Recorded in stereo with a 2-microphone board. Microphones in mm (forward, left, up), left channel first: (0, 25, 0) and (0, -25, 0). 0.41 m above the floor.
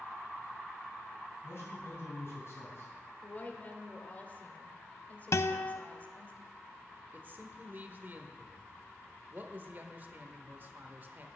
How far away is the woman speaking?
About 1.2 m.